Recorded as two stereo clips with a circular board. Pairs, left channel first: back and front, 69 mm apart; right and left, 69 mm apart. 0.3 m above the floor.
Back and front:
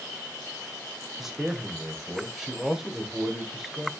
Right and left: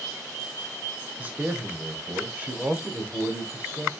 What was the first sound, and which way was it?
A man speaking, 80° left.